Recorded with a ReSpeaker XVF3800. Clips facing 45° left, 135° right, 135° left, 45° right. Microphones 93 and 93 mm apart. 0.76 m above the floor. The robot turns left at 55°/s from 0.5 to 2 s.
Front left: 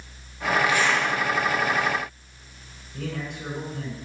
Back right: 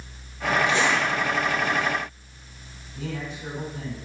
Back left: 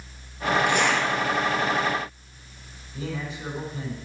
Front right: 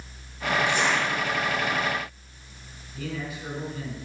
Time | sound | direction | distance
0.7 | a zipper | 165° left | 3.5 m
2.9 | a man speaking | 75° left | 4.5 m